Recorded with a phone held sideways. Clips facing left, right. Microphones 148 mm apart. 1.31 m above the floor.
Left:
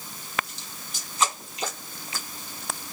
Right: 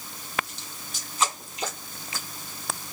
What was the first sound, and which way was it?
Only background noise.